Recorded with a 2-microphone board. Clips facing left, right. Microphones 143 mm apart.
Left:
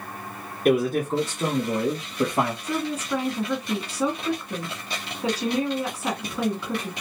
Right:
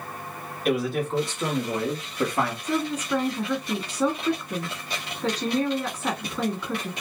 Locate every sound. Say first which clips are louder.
0.7 s a man speaking: left 4 dB; 50° left (ahead or behind), 1.9 m; by 2.5 s 25° left (ahead or behind), 2.5 m
2.6 s a woman speaking: right 1 dB; 10° left (ahead or behind), 1.1 m